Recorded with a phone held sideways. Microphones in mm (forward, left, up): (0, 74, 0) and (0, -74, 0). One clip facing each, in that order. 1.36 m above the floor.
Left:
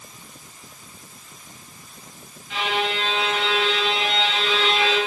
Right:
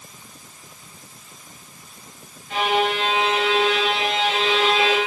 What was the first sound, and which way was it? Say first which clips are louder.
A violin: right 4 dB; 45° right (ahead or behind).